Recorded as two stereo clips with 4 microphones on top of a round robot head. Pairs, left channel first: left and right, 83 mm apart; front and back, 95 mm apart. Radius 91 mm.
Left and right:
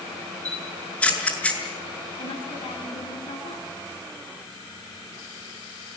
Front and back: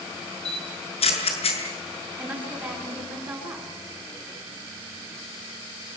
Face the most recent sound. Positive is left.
turn(degrees=105)